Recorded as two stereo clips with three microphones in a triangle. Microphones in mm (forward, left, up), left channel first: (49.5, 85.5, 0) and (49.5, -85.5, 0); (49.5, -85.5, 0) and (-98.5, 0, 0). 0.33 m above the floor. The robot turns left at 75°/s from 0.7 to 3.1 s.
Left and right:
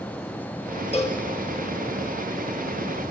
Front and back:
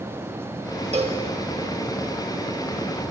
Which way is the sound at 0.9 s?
125° left.